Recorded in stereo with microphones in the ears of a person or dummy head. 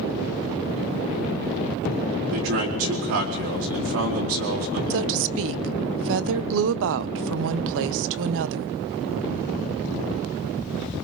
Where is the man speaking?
75° right (ahead or behind), 4.5 m.